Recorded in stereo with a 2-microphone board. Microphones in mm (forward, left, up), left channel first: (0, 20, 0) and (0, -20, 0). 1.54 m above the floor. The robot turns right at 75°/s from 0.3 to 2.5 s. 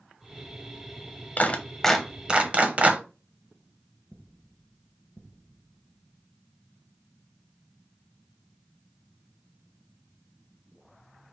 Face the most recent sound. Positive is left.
turn(degrees=-35)  # may be behind; listen again after turning